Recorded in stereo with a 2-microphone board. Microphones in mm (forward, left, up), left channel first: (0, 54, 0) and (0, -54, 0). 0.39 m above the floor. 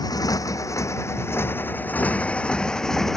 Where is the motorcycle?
35° left (ahead or behind); by 3.2 s 5° left (ahead or behind).